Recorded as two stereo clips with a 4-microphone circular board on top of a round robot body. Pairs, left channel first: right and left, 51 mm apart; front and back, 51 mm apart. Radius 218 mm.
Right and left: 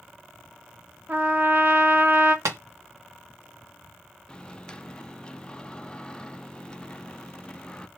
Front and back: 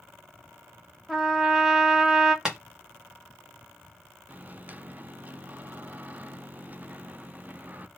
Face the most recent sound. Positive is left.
turn(degrees=-150)